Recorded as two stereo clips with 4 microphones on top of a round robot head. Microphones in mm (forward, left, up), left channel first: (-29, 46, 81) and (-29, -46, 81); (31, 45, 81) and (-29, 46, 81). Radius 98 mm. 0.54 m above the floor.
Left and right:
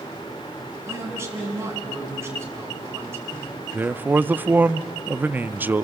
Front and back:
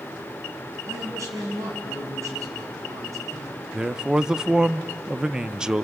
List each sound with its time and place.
0.9 s a man speaking: 150° right, 5.5 m
3.7 s a man speaking: 125° right, 0.6 m